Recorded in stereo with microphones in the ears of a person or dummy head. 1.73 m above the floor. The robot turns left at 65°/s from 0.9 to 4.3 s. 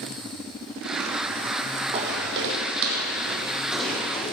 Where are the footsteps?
35° right (ahead or behind), 3.5 m; by 4.3 s 35° left (ahead or behind), 4.5 m.